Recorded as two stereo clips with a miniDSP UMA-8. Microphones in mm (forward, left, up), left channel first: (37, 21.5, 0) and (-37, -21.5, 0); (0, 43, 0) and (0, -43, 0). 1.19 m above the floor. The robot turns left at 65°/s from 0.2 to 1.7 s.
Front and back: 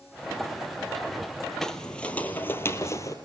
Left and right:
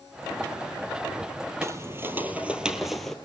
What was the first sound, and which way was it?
Footsteps, 50° right.